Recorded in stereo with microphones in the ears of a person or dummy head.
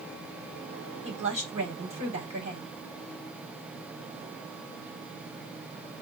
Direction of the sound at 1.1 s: 30° right (ahead or behind).